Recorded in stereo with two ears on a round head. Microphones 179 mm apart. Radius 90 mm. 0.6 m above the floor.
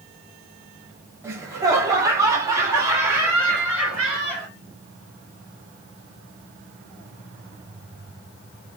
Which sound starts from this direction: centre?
Laughter, at 1.2 s.